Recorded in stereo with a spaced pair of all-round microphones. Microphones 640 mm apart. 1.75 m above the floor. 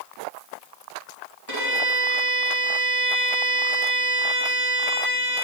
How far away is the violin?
About 1.7 m.